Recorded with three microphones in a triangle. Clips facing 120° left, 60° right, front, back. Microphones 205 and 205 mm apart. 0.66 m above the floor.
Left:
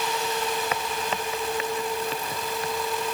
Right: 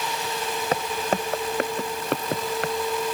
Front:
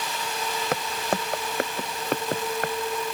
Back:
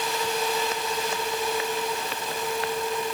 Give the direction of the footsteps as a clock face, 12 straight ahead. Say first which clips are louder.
Right 4 dB, front 1 dB; 12 o'clock.